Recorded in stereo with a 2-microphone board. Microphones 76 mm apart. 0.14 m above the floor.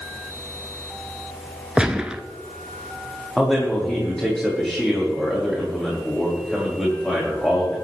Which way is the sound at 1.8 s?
10° right (ahead or behind).